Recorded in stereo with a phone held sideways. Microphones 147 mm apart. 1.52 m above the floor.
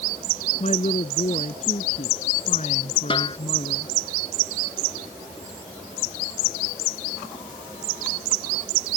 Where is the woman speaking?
45° left (ahead or behind).